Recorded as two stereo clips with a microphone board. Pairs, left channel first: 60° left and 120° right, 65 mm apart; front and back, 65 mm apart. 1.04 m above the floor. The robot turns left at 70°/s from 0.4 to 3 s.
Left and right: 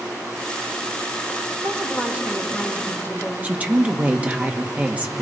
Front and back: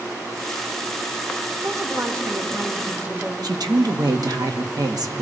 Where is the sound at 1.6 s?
145° right, 3 m; by 3.3 s 120° left, 3 m.